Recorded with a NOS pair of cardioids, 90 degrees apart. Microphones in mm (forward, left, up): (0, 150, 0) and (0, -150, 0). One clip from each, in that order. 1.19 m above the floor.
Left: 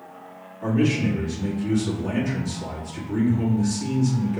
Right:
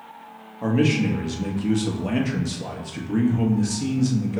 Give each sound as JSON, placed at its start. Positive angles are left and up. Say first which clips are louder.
{"t": 0.6, "sound": "a man speaking", "louder": "right 1 dB", "azimuth_deg": -45, "distance_m": 1.3}